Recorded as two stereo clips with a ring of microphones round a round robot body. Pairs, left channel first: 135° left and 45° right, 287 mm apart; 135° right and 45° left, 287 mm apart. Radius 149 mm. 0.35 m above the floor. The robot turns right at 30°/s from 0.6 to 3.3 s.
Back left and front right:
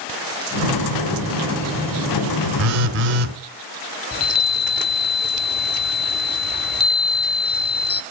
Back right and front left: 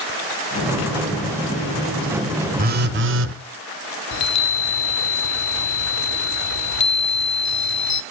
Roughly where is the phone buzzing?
Ahead.